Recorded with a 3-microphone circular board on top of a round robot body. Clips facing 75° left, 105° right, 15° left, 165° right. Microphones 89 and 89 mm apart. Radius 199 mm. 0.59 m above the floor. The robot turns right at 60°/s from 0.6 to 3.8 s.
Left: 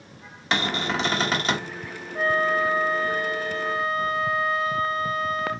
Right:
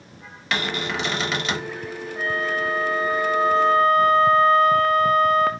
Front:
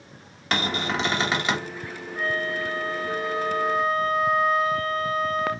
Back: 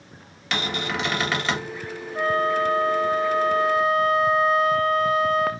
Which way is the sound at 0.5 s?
30° left.